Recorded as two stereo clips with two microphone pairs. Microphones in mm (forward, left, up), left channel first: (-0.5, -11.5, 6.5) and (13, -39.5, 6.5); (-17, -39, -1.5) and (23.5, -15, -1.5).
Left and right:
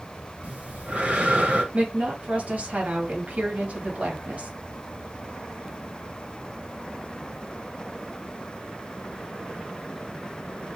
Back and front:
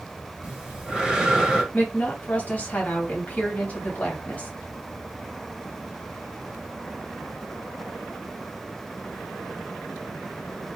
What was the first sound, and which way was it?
Breathing, 45° right.